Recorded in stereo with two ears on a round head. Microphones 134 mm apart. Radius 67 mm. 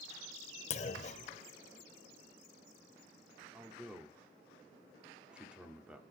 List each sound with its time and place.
0.7 s a clunk: 45° left (ahead or behind), 0.6 m
3.5 s a man speaking: 5° right (ahead or behind), 1.6 m